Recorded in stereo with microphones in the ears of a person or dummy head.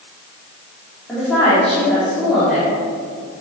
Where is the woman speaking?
Centre (ahead or behind), 3 m.